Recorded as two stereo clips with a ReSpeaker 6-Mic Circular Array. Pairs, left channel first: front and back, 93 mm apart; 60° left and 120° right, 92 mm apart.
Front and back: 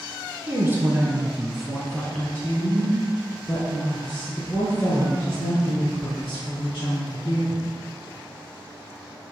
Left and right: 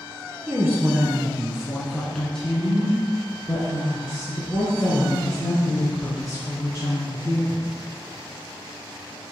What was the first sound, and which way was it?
A woman speaking, 160° right.